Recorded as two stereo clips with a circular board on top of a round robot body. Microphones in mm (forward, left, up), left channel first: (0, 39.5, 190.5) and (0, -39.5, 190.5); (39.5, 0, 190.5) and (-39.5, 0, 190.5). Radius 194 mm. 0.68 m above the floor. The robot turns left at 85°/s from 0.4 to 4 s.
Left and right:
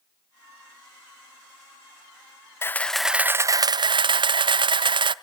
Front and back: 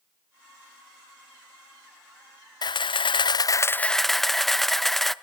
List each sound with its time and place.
2.6 s a camera shutter: 30° left, 0.6 m; by 5.1 s 85° right, 0.6 m